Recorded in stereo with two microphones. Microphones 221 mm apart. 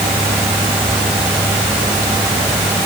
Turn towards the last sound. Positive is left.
No sound to turn to.